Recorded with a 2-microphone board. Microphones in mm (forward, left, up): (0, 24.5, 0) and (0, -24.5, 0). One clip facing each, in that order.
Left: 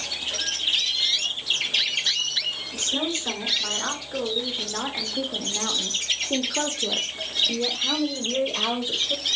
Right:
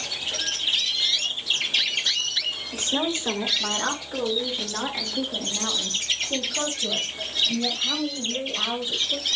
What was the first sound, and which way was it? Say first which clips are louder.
A woman speaking: right 2 dB; 25° right (ahead or behind).